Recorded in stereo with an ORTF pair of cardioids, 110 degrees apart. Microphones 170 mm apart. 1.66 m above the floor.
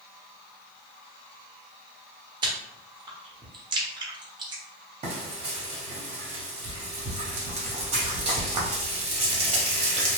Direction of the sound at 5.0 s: 40° right.